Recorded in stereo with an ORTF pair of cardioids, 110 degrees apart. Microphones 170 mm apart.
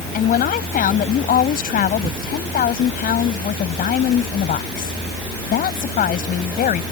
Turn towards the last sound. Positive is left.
turn(degrees=55)